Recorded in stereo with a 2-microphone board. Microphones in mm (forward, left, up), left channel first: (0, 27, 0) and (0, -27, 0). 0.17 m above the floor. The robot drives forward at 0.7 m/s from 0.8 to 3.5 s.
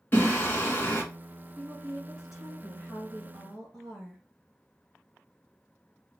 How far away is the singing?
About 1.7 m.